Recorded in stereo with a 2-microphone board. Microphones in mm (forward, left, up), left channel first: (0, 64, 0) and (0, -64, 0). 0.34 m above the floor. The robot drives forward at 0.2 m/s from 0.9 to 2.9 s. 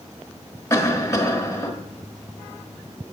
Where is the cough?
25° left (ahead or behind), 1.3 m.